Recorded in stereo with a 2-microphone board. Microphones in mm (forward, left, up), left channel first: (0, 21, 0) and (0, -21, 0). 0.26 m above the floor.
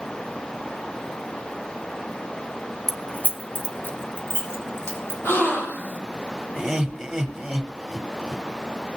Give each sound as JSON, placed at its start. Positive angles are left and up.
{"t": 2.9, "sound": "keys jangling", "side_deg": 10, "distance_m": 0.6}
{"t": 5.2, "sound": "a gasp", "side_deg": 60, "distance_m": 6.0}
{"t": 6.5, "sound": "laughter", "side_deg": -5, "distance_m": 1.0}